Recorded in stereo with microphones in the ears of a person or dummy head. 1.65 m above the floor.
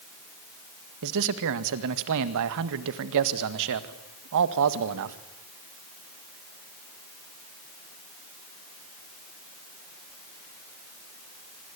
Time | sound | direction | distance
1.0 | a man speaking | 70° right (ahead or behind) | 1.8 m